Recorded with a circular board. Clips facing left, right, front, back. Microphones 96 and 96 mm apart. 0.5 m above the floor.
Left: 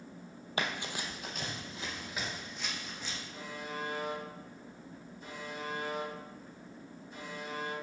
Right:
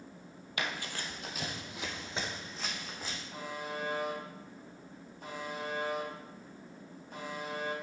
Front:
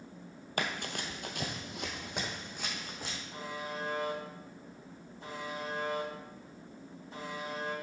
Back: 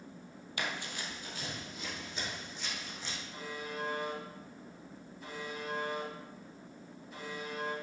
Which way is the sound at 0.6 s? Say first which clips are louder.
Left 2 dB, front 3 dB; 35° left.